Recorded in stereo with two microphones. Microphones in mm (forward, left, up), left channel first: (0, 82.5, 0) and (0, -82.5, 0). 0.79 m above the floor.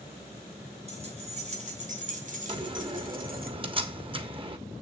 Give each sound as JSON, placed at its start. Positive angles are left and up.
{"t": 0.9, "sound": "keys jangling", "side_deg": -40, "distance_m": 3.0}
{"t": 2.5, "sound": "a door slam", "side_deg": -30, "distance_m": 1.3}